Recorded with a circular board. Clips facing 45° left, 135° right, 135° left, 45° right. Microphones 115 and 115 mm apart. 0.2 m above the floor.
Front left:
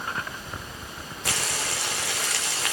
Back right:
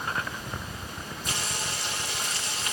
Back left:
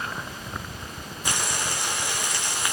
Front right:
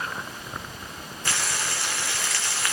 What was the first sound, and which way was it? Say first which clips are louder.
Frying: front left 4 dB, back left 1 dB; 60° left.